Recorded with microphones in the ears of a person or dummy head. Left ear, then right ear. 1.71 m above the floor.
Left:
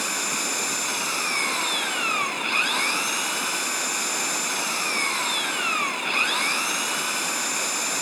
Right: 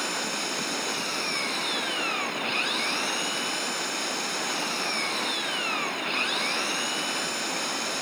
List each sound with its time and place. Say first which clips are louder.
0.0 s an engine running: left 3 dB; 30° left (ahead or behind)